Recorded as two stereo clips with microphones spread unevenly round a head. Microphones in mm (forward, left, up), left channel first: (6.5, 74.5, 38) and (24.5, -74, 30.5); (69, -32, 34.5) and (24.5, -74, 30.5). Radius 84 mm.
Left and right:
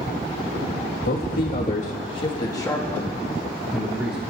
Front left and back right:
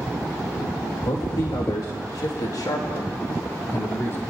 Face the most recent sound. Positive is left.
turn(degrees=0)